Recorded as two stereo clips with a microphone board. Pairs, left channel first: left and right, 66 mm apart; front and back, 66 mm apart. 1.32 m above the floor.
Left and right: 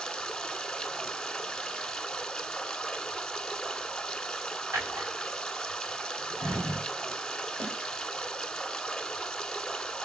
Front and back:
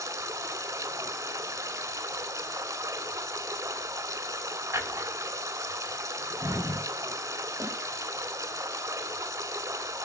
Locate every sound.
0.0 s running water: 170° left, 1.4 m
4.7 s a drawer: 135° right, 6.5 m
7.6 s a snare drum: 145° right, 7 m